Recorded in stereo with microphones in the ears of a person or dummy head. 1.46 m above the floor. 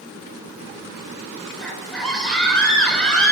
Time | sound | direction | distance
1.6 | a scream | 5° left (ahead or behind) | 5 m